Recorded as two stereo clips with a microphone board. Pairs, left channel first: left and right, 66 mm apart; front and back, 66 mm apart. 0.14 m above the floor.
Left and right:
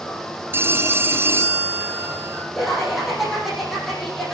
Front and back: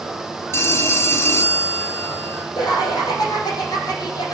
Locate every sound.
0.5 s a phone ringing: 40° right, 1.9 m
2.5 s laughter: 5° right, 6.5 m